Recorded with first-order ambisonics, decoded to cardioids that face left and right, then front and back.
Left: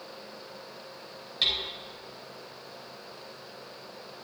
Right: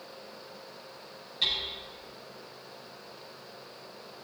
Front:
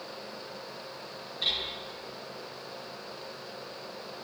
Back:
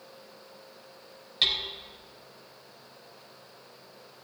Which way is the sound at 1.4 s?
155° left.